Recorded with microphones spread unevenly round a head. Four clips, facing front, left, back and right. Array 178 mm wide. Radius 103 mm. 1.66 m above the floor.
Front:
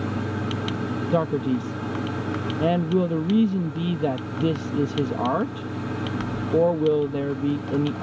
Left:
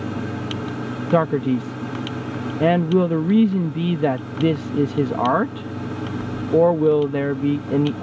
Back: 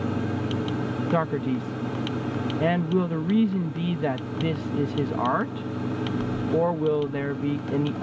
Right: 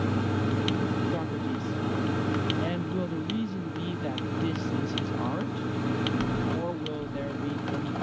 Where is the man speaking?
70° left.